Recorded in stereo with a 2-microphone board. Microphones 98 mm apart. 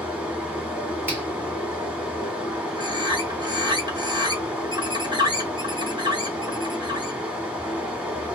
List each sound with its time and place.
0.0 s running water: 10° right (ahead or behind), 1.2 m
1.1 s a finger snap: 20° right (ahead or behind), 1.2 m
2.8 s a bird: 45° right (ahead or behind), 1.1 m